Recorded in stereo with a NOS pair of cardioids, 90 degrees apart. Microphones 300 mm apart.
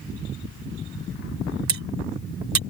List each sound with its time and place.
1.7 s cutlery clinking: 65° right